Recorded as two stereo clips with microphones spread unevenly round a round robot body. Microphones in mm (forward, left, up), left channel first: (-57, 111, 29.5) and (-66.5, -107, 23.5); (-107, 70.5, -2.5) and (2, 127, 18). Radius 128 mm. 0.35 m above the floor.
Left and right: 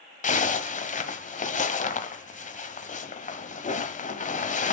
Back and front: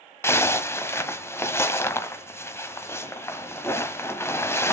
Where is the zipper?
140° left, 1.4 m.